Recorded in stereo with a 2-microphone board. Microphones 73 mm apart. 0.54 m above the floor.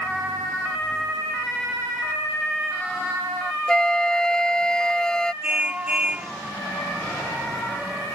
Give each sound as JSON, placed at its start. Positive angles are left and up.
{"t": 3.7, "sound": "a flute", "side_deg": 10}
{"t": 5.4, "sound": "a car horn", "side_deg": -20}